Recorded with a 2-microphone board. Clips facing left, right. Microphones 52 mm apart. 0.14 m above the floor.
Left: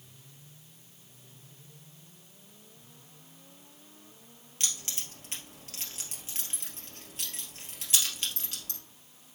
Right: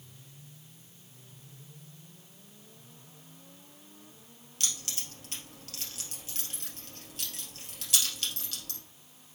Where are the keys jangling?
30° left (ahead or behind), 1.9 m.